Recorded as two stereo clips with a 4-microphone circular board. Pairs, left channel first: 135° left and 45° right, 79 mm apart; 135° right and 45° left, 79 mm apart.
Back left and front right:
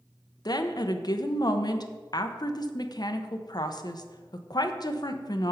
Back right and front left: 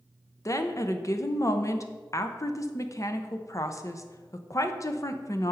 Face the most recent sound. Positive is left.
turn(degrees=175)